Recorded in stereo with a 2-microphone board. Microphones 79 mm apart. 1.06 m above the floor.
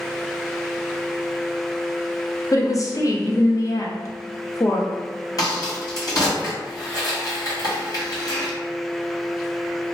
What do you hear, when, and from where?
2.5 s a woman speaking: 45° left (ahead or behind), 0.5 m
5.4 s a crack: 50° left (ahead or behind), 1.4 m